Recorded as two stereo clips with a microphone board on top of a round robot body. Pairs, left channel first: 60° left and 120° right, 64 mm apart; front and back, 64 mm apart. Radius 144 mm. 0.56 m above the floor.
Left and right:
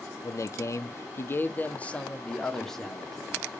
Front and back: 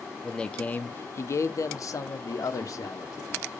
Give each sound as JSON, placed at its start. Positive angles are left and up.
{"t": 0.2, "sound": "a man speaking", "azimuth_deg": 80, "distance_m": 0.9}